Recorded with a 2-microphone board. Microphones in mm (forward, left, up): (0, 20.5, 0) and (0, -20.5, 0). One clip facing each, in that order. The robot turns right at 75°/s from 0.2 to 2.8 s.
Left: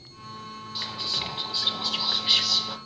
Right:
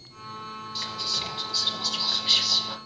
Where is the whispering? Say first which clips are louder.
Left 1 dB; 15° left (ahead or behind), 1.1 m; by 2.8 s centre (ahead or behind), 1.1 m.